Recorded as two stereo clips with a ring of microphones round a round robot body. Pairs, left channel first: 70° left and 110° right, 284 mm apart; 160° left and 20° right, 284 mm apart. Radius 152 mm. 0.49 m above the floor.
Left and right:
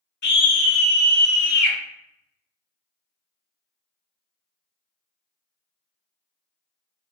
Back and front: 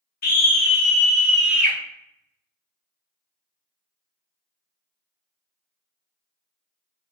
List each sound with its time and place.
0.2 s a scream: 110° left, 1.0 m; by 1.8 s 60° left, 1.2 m